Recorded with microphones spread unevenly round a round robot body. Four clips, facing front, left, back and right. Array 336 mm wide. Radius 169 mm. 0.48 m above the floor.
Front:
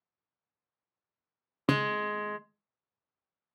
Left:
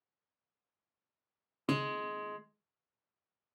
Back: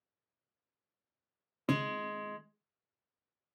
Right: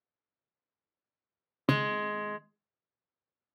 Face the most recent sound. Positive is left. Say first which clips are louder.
# right 5 dB, front 5 dB
turn(degrees=-25)